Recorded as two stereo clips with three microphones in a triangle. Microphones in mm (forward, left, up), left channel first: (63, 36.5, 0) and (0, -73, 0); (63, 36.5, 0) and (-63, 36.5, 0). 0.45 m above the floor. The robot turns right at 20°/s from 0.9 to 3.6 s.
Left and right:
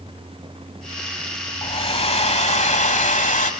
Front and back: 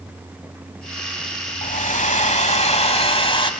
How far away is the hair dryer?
About 1.3 m.